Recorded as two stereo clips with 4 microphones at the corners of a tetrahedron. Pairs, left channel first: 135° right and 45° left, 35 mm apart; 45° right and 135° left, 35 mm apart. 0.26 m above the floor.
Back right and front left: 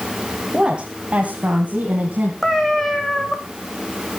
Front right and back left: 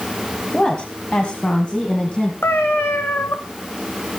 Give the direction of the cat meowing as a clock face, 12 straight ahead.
2 o'clock.